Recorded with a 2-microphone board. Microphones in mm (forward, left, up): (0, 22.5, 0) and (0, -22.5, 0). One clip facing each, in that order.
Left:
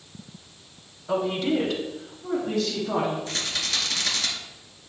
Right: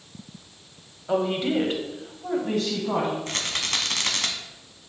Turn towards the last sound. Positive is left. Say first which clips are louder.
# right 1 dB
turn(degrees=-55)  # may be behind; listen again after turning